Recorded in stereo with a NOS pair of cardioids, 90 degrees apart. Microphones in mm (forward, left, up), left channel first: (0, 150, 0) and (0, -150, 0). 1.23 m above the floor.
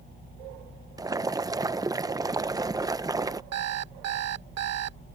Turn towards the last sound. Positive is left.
turn(degrees=-60)